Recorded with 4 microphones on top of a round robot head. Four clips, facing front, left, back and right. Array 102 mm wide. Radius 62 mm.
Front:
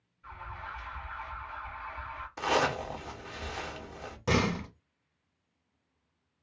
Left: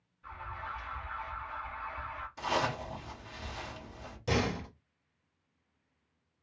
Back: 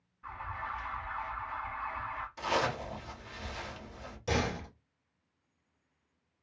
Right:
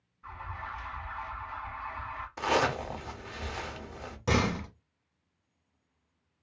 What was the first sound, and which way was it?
An alarm, 150° right.